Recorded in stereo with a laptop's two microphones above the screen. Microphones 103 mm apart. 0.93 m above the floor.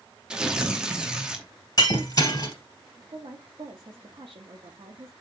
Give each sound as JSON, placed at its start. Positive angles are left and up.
{"t": 0.3, "sound": "tearing paper", "side_deg": -10, "distance_m": 0.9}
{"t": 1.8, "sound": "breaking glass", "side_deg": 40, "distance_m": 3.0}
{"t": 3.1, "sound": "a woman speaking", "side_deg": -50, "distance_m": 1.2}